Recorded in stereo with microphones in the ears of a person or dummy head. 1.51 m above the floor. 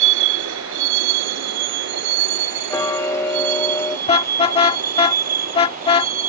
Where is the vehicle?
85° right; by 6.3 s 45° right (ahead or behind).